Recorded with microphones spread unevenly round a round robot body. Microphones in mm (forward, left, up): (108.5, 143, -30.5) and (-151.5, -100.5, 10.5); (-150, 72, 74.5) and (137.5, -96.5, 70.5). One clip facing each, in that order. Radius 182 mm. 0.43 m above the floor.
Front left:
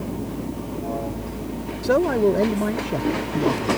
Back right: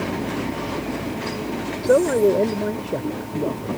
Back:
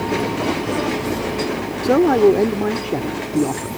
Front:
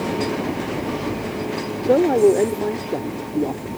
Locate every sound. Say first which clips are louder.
1.8 s a man speaking: back right 2 dB, back 1 dB; 100° left